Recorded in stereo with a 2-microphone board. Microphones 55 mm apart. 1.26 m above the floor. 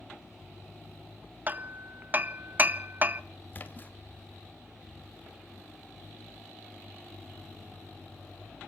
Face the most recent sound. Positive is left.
turn(degrees=35)  # may be behind; listen again after turning